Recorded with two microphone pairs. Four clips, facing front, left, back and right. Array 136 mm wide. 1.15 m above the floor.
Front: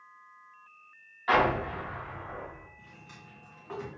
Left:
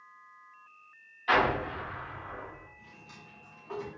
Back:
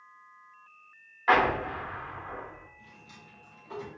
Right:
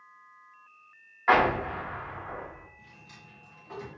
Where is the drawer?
25° left, 1.5 m.